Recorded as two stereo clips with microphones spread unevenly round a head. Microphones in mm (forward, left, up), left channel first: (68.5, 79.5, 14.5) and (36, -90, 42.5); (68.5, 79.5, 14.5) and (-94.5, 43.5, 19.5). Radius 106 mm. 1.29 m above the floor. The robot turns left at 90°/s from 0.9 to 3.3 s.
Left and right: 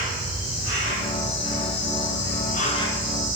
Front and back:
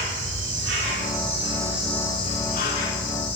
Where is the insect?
175° right, 4 m; by 3.4 s 30° right, 4 m.